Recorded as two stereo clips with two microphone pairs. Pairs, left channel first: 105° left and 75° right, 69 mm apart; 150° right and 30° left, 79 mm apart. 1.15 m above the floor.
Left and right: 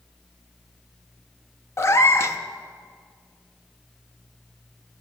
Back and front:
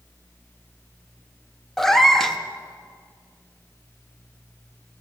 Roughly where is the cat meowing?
Behind left.